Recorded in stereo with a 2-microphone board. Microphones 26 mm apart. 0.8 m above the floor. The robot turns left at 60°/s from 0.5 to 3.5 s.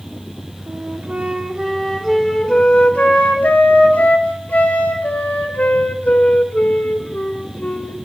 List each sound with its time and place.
0.7 s a flute: 100° right, 3 m; by 8.0 s 90° left, 3 m